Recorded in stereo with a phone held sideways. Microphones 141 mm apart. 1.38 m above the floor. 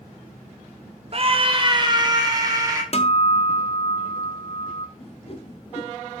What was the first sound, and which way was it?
A scream, 45° right (ahead or behind).